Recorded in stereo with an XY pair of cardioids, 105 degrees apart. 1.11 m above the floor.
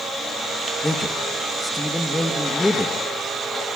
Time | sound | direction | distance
0.8 | a man speaking | 15° left | 1.4 m